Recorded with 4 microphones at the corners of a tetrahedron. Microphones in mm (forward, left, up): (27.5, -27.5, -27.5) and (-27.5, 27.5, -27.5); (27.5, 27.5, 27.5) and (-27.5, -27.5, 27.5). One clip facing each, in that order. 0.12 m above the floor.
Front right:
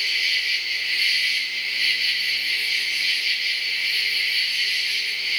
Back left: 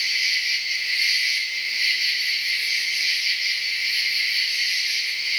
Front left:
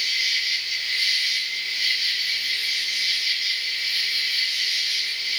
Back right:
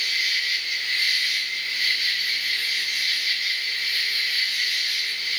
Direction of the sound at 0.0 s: 160° right.